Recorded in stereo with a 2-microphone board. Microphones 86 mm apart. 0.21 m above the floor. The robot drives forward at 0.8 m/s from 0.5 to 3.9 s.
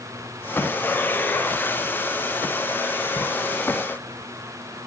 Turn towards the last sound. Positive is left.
No sound to turn to.